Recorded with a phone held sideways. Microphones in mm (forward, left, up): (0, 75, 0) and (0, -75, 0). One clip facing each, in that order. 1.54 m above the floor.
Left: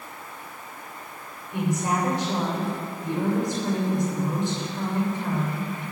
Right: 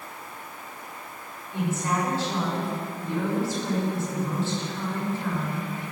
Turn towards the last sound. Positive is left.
turn(degrees=15)  # may be behind; listen again after turning